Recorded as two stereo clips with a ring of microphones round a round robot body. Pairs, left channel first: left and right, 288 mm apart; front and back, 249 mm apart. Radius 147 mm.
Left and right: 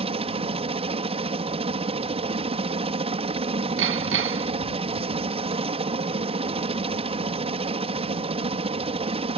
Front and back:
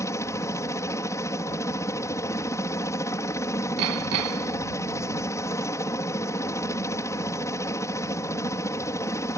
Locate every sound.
0.0 s a helicopter: 60° right
3.8 s hammering: 140° right